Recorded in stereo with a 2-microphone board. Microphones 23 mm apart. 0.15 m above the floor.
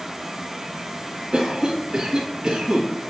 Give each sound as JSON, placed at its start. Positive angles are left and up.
{"t": 1.3, "sound": "a cough", "side_deg": -30, "distance_m": 1.7}